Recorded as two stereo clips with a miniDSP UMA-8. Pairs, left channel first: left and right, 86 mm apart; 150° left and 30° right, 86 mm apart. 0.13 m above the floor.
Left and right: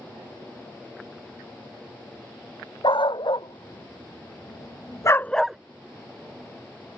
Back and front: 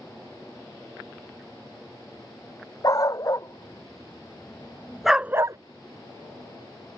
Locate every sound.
2.8 s a dog barking: 105° left; by 5.6 s 15° right